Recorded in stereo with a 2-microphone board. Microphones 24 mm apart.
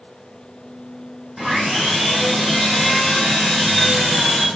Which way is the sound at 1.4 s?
5° left (ahead or behind).